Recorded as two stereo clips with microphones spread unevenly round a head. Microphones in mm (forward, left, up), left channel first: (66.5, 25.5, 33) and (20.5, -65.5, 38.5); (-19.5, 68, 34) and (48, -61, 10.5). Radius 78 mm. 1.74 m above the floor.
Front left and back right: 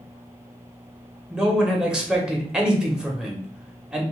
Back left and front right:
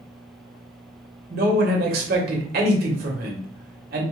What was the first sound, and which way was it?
A man speaking, 35° right.